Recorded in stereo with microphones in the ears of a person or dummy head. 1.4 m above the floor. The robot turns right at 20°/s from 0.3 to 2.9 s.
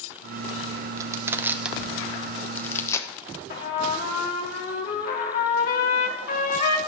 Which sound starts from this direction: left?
A trumpet, at 3.5 s.